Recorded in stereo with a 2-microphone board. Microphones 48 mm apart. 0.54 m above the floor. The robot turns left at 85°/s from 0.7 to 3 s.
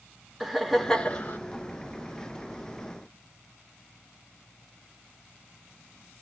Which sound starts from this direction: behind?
Laughter, at 0.4 s.